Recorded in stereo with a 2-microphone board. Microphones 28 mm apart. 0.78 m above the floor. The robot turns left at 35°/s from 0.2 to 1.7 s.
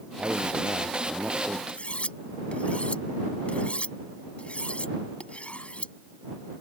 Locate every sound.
0.2 s a man speaking: 90° right; by 1.6 s 140° right
1.7 s cutlery clinking: 55° left (ahead or behind)